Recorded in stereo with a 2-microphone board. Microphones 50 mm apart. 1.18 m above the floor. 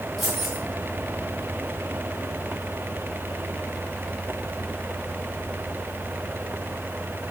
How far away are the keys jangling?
About 7 m.